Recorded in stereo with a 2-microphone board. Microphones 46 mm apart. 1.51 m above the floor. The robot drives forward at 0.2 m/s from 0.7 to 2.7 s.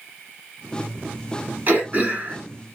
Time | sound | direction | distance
1.7 | throat clearing | 40° right (ahead or behind) | 1.3 m